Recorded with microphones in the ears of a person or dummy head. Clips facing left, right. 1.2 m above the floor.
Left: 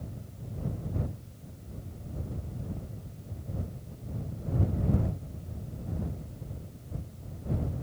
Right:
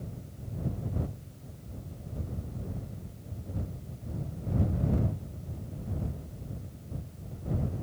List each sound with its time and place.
Only background noise.